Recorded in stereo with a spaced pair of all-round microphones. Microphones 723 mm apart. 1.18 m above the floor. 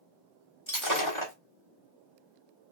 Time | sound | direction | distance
0.7 | breaking glass | 40° left (ahead or behind) | 1.6 m